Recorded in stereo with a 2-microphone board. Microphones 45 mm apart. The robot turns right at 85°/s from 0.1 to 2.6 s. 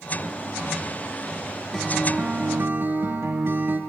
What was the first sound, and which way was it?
A guitar, 170° left.